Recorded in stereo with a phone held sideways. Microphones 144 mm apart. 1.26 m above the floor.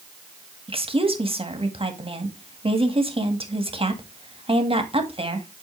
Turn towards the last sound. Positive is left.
turn(degrees=-40)  # may be behind; listen again after turning